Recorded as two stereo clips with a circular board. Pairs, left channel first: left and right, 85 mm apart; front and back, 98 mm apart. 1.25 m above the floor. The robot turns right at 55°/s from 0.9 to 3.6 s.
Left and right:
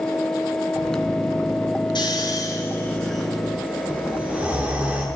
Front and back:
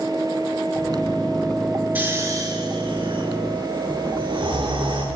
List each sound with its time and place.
1.9 s snoring: 110° left, 10 m; by 5.0 s 160° right, 10 m